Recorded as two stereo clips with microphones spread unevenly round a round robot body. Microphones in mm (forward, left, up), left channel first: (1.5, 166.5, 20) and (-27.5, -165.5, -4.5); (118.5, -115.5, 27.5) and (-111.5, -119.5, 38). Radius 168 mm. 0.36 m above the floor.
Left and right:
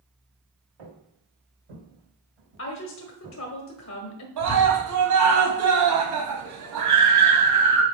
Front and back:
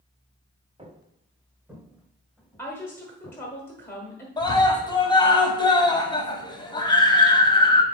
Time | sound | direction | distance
0.8 | footsteps | 110° right | 2.5 m
2.6 | a woman speaking | 70° left | 1.2 m
4.4 | a scream | 70° right | 2 m